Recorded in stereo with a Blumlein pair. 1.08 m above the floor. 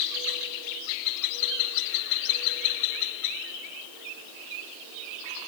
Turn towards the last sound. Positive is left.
No sound to turn to.